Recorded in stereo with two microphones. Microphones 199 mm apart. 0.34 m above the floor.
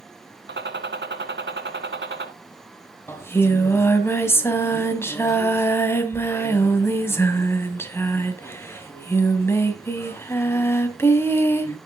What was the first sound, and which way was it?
A gunshot, 80° right.